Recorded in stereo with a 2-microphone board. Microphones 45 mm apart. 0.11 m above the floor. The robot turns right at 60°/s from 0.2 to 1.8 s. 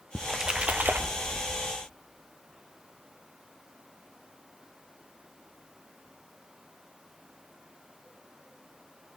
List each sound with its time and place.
0.1 s a splash: straight behind, 0.9 m; by 1.6 s 95° right, 0.9 m